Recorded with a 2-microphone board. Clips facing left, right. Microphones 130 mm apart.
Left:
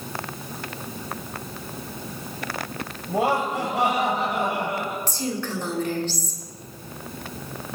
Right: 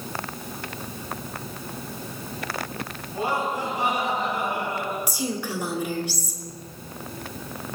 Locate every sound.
3.1 s laughter: 80° left, 4 m; by 5.0 s 75° left (ahead or behind), 4.5 m
5.1 s a woman speaking: 10° right (ahead or behind), 2 m